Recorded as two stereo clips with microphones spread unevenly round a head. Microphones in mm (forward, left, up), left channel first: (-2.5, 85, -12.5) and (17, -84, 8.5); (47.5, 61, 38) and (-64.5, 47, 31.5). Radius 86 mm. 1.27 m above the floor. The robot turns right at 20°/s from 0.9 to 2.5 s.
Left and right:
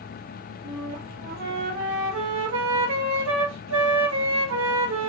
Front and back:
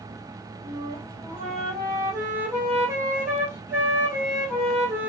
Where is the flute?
130° right, 2 m; by 5.1 s 100° right, 2 m.